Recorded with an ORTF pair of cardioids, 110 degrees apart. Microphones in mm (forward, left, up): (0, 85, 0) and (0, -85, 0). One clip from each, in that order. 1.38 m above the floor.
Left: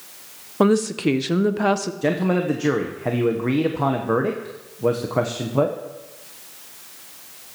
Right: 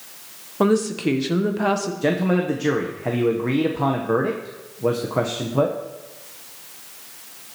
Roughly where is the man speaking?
Ahead.